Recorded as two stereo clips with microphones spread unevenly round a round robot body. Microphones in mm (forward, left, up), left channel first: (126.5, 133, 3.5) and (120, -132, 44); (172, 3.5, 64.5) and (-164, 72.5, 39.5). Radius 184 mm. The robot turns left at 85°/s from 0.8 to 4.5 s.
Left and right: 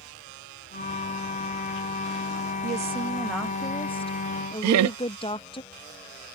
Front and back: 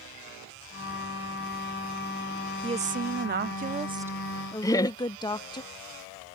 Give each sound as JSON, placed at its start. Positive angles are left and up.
{"t": 2.6, "sound": "a woman speaking", "azimuth_deg": -135}
{"t": 4.6, "sound": "laughter", "azimuth_deg": -95}